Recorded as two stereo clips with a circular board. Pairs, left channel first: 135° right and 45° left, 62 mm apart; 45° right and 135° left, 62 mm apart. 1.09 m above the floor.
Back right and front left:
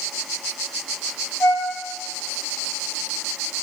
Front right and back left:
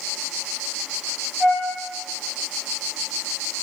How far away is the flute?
About 1.7 m.